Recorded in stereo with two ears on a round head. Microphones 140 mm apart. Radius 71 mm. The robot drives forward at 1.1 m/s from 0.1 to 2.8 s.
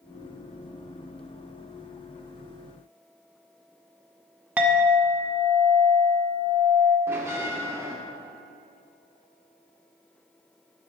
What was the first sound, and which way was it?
A clink, 10° right (ahead or behind).